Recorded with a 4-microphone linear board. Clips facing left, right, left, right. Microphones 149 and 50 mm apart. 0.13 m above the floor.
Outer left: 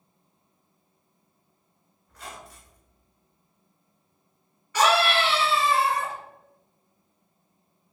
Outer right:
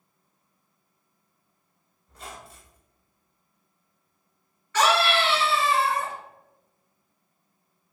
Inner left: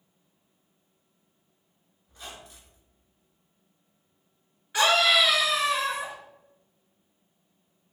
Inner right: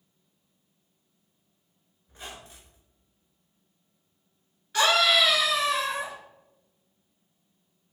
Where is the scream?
15° left (ahead or behind), 1.6 m.